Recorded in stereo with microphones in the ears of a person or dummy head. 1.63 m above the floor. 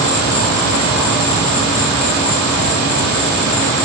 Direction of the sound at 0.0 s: 25° left (ahead or behind).